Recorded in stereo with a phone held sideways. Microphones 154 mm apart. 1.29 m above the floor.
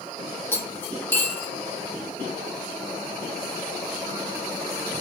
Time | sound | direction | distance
0.5 | cutlery clinking | 15° left (ahead or behind) | 1.0 m